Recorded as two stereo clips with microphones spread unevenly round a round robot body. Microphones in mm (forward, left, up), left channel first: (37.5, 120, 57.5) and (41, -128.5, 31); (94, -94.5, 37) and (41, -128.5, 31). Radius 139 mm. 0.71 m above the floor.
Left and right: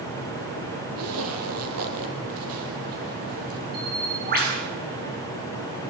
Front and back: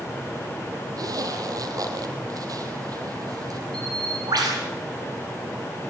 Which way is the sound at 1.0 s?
130° right.